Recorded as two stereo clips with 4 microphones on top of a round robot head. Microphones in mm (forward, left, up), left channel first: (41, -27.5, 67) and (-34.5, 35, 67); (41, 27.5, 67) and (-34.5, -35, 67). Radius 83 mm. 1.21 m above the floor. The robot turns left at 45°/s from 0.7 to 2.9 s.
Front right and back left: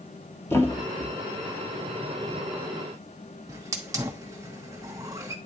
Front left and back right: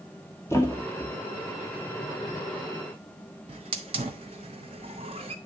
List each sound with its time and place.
0.5 s a thud: 5° left, 0.7 m; by 1.1 s 15° right, 0.7 m
3.5 s a hiss: 165° right, 0.5 m